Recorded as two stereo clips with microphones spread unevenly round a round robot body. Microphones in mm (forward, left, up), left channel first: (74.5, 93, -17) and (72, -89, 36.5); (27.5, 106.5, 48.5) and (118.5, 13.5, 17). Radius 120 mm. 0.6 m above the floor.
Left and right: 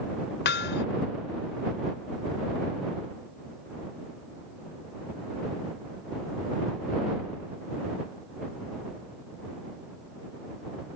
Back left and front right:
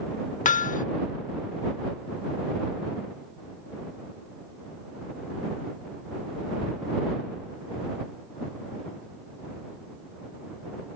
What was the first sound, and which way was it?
Hammering, 115° left.